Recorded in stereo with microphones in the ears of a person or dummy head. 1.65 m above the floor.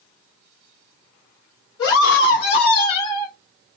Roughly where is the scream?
Left.